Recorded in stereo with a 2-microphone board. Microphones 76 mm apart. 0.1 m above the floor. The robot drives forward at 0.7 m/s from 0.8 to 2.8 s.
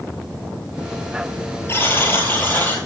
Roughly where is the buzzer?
Left.